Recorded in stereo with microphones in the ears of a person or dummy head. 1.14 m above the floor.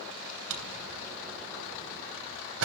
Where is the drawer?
80° right, 3 m.